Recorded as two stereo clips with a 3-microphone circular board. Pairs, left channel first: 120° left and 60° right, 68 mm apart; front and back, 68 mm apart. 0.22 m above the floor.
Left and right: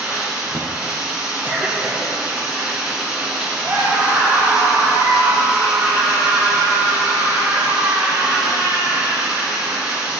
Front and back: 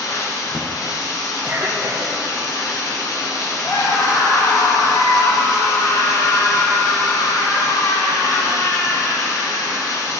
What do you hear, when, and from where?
0.0 s running water: 15° left, 2 m
1.4 s a cough: 135° right, 1.3 m
3.6 s a scream: 10° right, 4 m